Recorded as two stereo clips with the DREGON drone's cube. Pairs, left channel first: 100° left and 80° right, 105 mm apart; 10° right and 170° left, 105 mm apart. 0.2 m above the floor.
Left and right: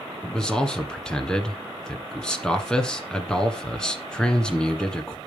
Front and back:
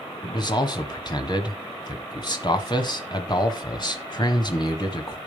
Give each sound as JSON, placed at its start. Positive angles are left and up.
{"t": 0.2, "sound": "a man speaking", "azimuth_deg": 20, "distance_m": 1.5}